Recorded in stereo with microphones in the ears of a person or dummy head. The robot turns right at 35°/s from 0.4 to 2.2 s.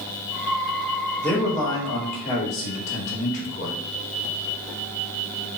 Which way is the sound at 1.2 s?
10° left.